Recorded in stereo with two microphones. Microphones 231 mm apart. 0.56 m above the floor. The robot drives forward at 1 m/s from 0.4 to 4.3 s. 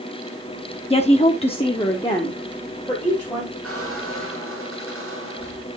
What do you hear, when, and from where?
0.9 s a woman speaking: 25° left (ahead or behind), 0.9 m; by 3.5 s 10° left (ahead or behind), 2.5 m
3.6 s a squeak: 70° right (ahead or behind), 3.5 m; by 5.8 s 65° right (ahead or behind), 4 m